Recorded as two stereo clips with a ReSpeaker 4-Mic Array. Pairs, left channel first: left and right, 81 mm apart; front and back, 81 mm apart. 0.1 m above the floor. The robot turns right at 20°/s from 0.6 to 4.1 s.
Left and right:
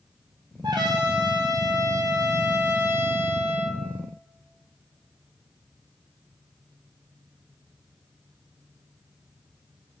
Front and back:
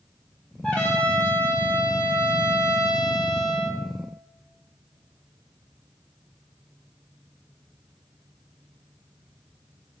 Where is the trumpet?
80° right, 0.7 m; by 3.8 s 15° right, 0.7 m.